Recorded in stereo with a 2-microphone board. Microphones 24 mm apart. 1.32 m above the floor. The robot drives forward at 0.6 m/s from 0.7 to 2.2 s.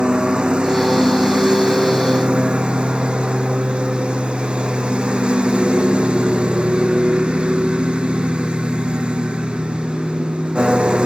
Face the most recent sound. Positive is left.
turn(degrees=-45)  # may be behind; listen again after turning